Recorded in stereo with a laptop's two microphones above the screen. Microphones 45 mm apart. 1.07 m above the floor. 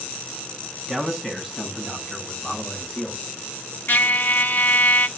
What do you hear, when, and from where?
0.9 s a man speaking: 5° left (ahead or behind), 7.5 m; by 3.2 s 20° left (ahead or behind), 7.5 m
3.9 s a trumpet: 50° left (ahead or behind), 0.9 m